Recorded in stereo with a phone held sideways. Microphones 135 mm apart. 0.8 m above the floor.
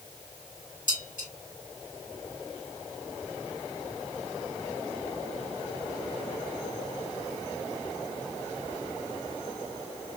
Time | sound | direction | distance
0.9 | dishes clattering | 80° left | 3 m